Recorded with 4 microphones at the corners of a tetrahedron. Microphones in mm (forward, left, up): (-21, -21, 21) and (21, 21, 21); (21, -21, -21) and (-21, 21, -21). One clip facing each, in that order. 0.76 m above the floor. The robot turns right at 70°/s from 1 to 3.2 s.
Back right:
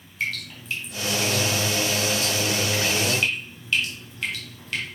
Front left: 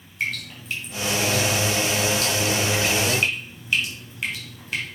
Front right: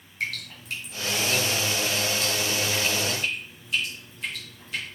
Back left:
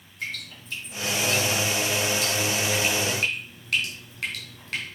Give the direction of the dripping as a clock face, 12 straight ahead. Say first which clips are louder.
Front left 1 dB, front right 3 dB; 1 o'clock.